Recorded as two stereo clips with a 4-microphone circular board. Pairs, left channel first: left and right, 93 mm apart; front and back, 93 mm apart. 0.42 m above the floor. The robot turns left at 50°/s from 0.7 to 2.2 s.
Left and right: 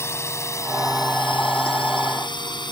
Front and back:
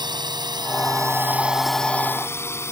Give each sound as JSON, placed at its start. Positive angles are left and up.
{"t": 0.0, "sound": "a drone", "azimuth_deg": 150}